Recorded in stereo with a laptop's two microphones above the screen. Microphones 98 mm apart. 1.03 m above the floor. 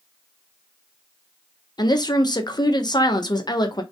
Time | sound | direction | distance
1.8 | a woman speaking | 45° left (ahead or behind) | 0.9 m